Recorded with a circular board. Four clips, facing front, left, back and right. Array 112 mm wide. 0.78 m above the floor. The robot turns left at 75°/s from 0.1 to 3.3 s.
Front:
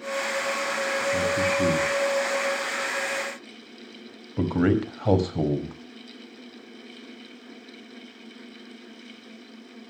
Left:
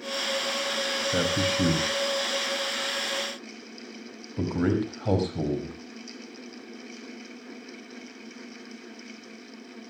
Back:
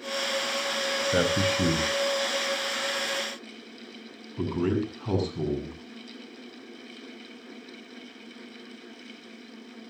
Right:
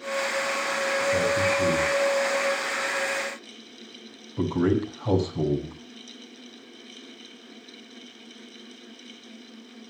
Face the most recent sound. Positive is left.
turn(degrees=5)